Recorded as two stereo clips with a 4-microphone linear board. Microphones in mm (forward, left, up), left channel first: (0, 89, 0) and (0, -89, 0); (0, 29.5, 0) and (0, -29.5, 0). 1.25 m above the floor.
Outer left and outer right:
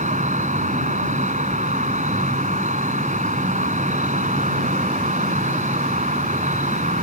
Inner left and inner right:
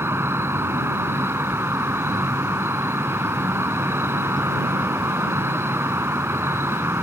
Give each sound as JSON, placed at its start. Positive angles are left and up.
{"t": 0.0, "sound": "an insect", "side_deg": -45}